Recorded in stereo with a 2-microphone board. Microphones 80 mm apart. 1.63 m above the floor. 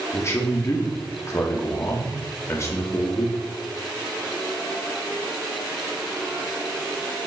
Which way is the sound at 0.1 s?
35° left (ahead or behind).